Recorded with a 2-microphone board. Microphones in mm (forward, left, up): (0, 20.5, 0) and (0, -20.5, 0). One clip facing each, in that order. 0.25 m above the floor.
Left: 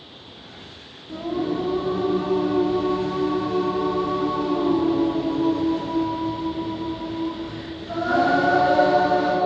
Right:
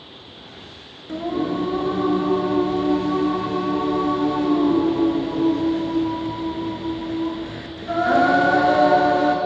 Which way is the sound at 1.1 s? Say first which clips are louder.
Right 2 dB; 60° right (ahead or behind).